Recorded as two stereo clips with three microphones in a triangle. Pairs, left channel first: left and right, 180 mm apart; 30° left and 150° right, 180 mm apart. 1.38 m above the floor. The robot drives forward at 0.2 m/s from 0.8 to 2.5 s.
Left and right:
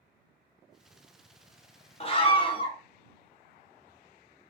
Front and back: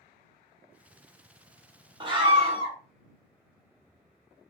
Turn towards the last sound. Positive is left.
turn(degrees=155)